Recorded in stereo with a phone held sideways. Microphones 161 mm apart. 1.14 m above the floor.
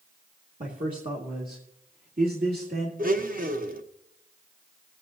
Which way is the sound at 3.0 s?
65° right (ahead or behind).